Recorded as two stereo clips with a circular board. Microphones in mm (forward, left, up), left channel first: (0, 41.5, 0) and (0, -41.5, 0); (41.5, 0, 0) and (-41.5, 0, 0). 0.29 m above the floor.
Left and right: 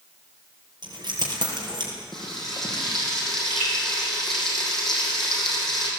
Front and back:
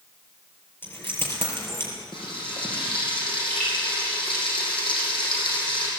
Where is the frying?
5° left, 7 m.